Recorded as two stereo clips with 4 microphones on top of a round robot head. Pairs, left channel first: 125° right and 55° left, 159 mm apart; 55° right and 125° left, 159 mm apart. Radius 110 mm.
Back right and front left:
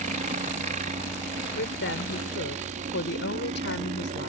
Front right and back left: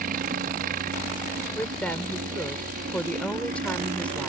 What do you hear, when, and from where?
0.0 s a helicopter: 95° left
1.6 s a woman speaking: 135° right